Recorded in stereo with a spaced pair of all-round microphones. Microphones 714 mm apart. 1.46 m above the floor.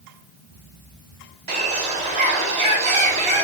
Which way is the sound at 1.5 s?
45° right (ahead or behind).